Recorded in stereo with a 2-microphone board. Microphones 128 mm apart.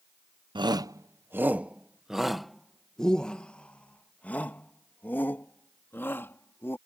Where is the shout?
40° right (ahead or behind); by 6.8 s 20° left (ahead or behind).